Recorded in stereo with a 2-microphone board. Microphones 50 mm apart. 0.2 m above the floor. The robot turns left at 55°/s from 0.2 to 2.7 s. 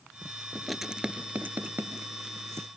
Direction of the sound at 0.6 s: 5° left (ahead or behind).